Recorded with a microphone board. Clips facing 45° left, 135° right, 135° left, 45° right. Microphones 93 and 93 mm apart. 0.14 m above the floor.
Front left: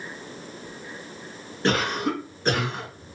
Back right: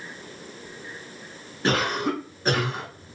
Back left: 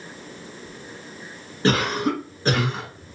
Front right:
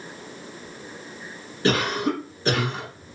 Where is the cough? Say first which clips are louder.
Even, back left 1 dB; 140° left, 1.3 m.